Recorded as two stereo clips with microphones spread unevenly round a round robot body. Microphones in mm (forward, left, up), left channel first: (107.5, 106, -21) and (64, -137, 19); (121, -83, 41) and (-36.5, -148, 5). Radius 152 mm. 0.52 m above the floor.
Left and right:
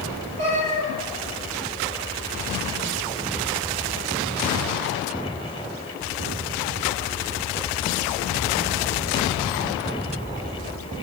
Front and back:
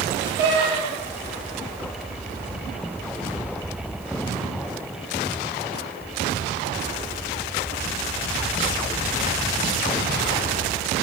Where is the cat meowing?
145° right, 5.5 m.